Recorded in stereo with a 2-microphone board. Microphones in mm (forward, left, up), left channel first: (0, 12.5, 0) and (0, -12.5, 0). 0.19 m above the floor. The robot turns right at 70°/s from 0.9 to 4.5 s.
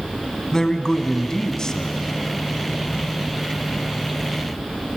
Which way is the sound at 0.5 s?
25° left (ahead or behind).